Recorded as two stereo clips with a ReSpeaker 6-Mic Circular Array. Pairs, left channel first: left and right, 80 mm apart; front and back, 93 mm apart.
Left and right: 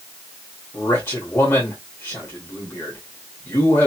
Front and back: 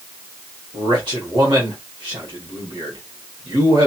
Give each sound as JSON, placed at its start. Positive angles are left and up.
{"t": 0.7, "sound": "a man speaking", "azimuth_deg": 150, "distance_m": 1.2}